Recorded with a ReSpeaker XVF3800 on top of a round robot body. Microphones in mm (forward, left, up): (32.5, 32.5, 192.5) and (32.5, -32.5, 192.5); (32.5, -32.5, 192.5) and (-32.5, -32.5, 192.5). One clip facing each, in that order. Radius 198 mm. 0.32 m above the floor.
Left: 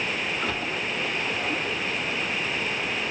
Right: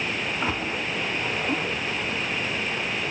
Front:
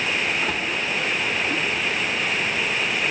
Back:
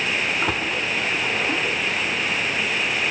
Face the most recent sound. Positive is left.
turn(degrees=-155)